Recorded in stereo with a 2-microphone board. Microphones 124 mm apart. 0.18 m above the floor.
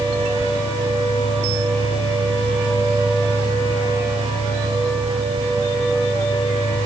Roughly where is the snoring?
No snoring in this recording.